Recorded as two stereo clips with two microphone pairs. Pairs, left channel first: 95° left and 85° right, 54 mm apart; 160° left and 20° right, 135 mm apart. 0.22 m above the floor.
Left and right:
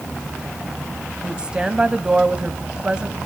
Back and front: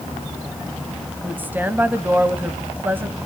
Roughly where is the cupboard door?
I don't hear a cupboard door.